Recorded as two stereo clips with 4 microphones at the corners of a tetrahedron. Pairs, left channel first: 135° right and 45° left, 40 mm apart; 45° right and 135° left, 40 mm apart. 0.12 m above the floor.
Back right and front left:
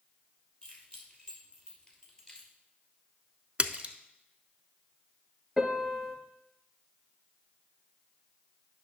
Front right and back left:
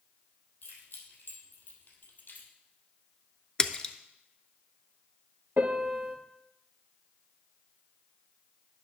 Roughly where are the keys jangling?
Right.